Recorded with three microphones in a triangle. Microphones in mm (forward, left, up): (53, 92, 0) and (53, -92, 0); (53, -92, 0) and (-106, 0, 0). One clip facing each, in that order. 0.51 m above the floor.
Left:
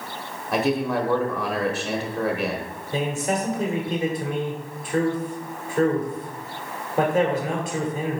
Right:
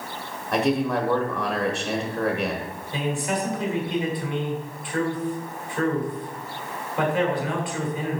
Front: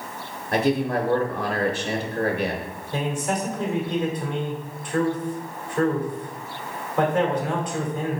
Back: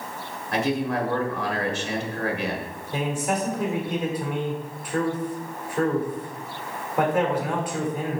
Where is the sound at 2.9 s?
70° left, 1.8 m.